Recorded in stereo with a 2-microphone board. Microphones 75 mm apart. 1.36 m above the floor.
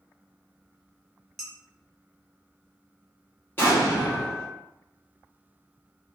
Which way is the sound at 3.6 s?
30° left (ahead or behind).